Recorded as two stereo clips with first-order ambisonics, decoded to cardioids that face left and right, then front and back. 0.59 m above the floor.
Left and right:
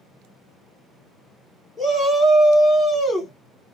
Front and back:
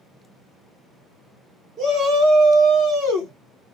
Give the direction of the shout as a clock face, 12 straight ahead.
5 o'clock.